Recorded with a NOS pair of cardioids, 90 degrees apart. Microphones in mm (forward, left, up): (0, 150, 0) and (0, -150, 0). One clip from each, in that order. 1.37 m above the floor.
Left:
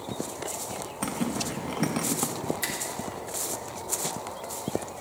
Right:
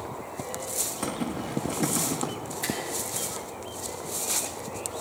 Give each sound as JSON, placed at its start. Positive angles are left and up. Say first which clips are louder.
{"t": 1.0, "sound": "a zipper", "louder": "left 1 dB", "azimuth_deg": 25, "distance_m": 1.5}
{"t": 2.6, "sound": "a finger snap", "louder": "right 4 dB", "azimuth_deg": 55, "distance_m": 3.0}